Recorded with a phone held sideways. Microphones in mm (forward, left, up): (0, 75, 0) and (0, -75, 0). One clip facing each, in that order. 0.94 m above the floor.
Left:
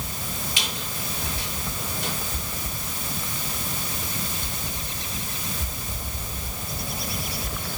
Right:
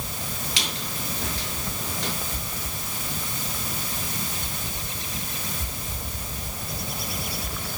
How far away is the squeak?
About 6.5 m.